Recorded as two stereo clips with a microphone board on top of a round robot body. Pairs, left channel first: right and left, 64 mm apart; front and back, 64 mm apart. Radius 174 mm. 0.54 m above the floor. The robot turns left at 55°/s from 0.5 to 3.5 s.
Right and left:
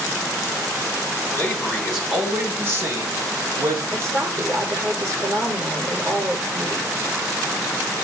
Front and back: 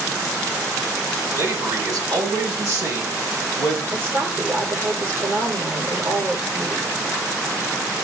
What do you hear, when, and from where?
1.3 s a man speaking: 145° right, 5.5 m; by 3.8 s 95° left, 5.5 m
3.9 s a woman speaking: 125° left, 4 m